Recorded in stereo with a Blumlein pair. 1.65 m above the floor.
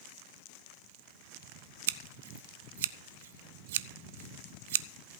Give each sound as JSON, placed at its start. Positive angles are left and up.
{"t": 1.9, "sound": "scissors", "azimuth_deg": -55, "distance_m": 0.6}